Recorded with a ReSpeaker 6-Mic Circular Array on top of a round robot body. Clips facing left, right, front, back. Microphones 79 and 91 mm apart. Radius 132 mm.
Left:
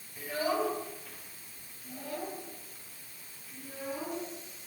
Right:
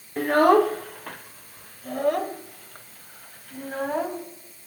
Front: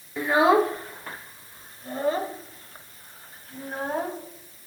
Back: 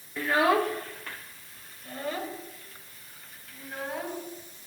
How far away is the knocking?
I don't hear knocking.